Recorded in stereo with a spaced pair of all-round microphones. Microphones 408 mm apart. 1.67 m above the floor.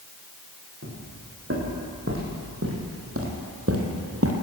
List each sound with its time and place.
0.8 s footsteps: 35° right (ahead or behind), 7.5 m